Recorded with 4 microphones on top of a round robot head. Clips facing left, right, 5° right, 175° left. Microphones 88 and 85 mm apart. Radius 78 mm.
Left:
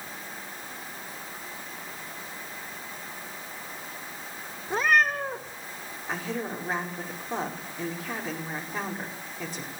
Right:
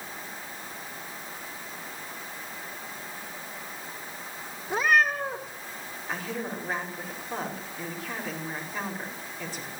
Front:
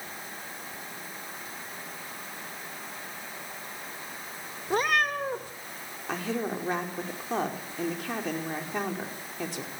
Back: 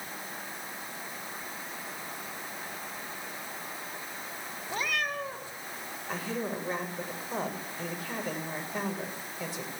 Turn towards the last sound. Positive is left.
turn(degrees=10)